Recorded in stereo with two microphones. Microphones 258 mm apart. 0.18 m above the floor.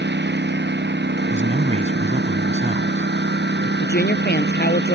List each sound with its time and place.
0.0 s a lawn mower: 45° right (ahead or behind)
1.3 s a man speaking: 30° right (ahead or behind)
3.8 s a woman speaking: 40° left (ahead or behind)